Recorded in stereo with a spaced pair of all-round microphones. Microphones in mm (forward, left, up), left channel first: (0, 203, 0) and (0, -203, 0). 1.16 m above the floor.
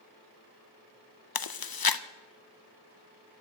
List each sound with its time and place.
1.4 s chewing: 60° left (ahead or behind), 0.5 m